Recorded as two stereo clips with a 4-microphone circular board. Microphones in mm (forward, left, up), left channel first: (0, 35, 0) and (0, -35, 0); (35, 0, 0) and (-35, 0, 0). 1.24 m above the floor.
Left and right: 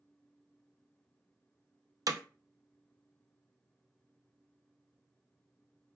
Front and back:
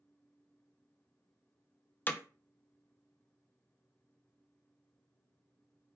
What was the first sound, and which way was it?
Hammering, 60° right.